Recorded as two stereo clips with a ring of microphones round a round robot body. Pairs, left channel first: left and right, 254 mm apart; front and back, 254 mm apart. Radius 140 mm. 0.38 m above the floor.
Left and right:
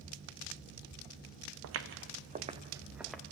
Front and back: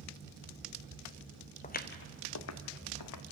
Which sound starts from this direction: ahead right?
Footsteps, at 1.6 s.